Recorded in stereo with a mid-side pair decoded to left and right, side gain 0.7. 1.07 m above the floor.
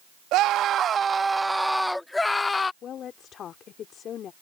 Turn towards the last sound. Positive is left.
turn(degrees=45)